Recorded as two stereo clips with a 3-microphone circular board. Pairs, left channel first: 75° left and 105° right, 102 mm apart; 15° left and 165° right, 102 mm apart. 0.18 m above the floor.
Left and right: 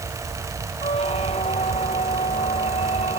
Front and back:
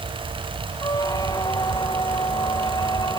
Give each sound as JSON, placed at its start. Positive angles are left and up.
{"t": 0.8, "sound": "a squeak", "azimuth_deg": 65}